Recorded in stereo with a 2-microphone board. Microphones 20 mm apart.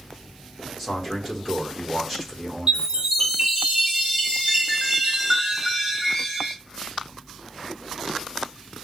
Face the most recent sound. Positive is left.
turn(degrees=-35)  # may be behind; listen again after turning